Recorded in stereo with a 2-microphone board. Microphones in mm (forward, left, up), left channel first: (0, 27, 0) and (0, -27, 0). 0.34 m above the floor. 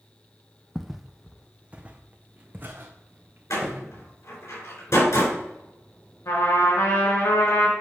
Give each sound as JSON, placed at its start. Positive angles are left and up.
{"t": 0.8, "sound": "footsteps", "side_deg": 5, "distance_m": 0.7}
{"t": 3.5, "sound": "a door slam", "side_deg": 70, "distance_m": 4.0}
{"t": 6.2, "sound": "a trumpet", "side_deg": 75, "distance_m": 4.0}